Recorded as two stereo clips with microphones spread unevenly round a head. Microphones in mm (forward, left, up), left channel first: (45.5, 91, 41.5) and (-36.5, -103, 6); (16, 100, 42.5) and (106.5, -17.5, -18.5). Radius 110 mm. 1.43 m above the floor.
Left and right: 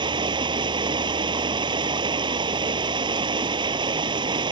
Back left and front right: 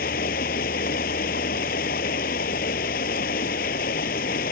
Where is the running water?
175° left.